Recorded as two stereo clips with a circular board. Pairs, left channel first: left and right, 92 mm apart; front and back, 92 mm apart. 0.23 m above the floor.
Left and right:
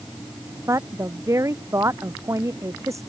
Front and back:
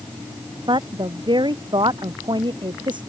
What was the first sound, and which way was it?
A woman speaking, 145° right.